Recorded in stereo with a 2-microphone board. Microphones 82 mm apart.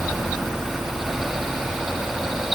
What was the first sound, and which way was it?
Only background noise.